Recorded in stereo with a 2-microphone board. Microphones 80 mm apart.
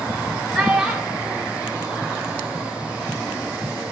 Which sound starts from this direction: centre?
A child speaking, at 0.5 s.